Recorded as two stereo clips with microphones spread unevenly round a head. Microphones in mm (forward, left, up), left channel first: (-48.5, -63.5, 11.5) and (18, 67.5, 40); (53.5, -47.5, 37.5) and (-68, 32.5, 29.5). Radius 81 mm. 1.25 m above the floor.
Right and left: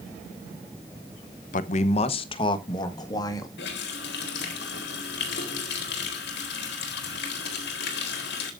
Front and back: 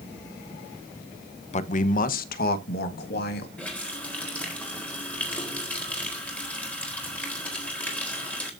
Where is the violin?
No violin in this recording.